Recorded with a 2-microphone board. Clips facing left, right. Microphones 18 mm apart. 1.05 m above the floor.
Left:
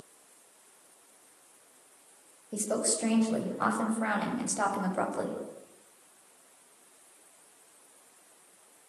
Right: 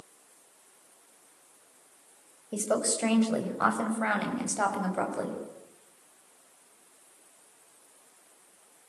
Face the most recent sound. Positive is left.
turn(degrees=0)  # may be behind; listen again after turning